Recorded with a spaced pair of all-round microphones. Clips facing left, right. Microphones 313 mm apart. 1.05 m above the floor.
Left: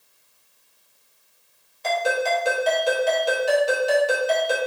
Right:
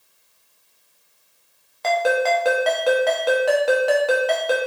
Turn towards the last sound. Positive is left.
turn(degrees=-70)  # may be behind; listen again after turning